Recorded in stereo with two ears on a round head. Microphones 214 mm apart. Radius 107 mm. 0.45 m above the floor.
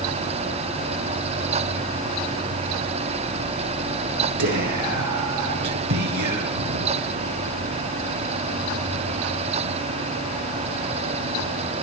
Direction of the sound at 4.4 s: 80° right.